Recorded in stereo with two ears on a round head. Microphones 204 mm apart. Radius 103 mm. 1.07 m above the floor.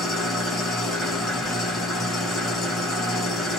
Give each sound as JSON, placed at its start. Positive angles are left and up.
{"t": 0.0, "sound": "an engine running", "side_deg": 0, "distance_m": 1.1}